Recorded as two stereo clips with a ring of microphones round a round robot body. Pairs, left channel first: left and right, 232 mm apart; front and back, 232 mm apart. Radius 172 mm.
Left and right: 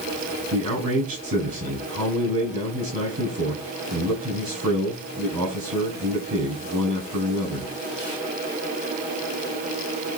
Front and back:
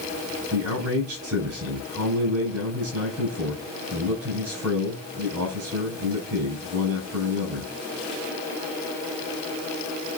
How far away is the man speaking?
About 7.5 m.